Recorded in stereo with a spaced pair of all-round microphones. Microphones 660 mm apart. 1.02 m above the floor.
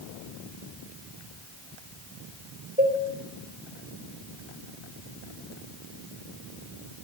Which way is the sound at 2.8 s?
15° right (ahead or behind).